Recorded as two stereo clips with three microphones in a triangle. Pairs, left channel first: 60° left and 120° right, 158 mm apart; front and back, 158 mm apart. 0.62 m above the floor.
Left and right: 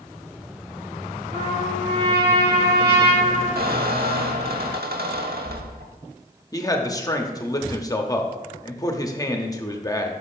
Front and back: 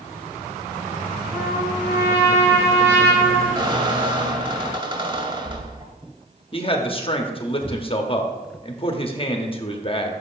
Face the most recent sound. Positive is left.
turn(degrees=10)